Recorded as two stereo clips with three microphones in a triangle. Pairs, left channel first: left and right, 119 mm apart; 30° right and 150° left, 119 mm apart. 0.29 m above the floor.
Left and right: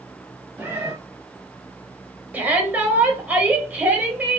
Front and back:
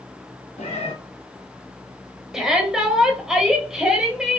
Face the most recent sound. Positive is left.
turn(degrees=-135)